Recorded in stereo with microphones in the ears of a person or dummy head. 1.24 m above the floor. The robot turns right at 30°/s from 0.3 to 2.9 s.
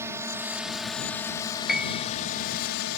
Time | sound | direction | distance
0.0 | a drone | 20° right | ?
1.7 | a piano | centre (ahead or behind) | ?